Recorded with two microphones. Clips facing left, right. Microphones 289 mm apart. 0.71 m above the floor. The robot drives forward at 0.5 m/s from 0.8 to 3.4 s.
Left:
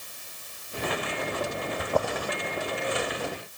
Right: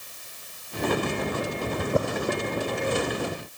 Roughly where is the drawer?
Right.